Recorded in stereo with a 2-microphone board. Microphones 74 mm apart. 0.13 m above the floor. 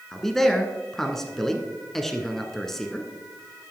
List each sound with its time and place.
0.1 s a man speaking: 5° left (ahead or behind), 1.1 m